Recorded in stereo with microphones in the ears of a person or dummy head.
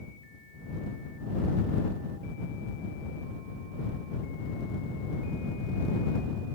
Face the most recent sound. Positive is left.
No sound to turn to.